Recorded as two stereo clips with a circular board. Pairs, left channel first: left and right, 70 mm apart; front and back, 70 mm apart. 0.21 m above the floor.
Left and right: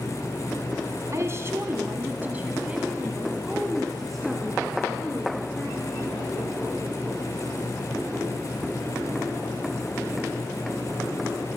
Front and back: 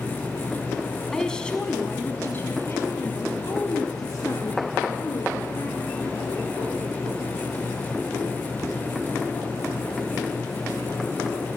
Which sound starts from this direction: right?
A woman speaking, at 1.1 s.